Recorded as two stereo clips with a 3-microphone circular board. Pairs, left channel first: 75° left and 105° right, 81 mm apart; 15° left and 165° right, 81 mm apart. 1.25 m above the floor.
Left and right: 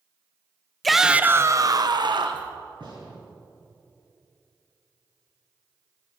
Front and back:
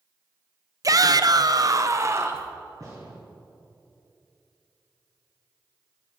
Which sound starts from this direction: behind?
A shout, at 0.8 s.